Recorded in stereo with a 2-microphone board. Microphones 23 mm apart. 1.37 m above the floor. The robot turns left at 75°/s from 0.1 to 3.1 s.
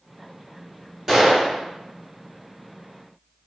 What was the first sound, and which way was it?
A gunshot, 20° right.